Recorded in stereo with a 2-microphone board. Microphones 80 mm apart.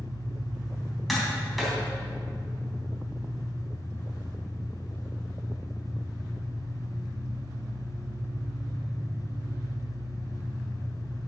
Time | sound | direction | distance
0.0 | an engine running | 40° right (ahead or behind) | 2 m
1.1 | tapping | centre (ahead or behind) | 3 m